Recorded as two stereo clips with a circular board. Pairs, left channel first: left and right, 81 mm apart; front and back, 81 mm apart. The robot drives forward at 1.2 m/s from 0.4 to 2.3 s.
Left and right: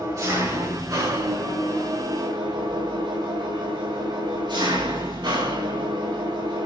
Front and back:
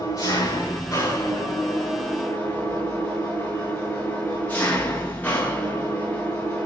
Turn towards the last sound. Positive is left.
turn(degrees=-70)